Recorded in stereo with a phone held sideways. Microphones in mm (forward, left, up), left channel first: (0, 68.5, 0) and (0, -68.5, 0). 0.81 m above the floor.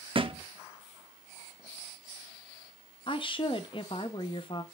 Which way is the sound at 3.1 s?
35° left (ahead or behind).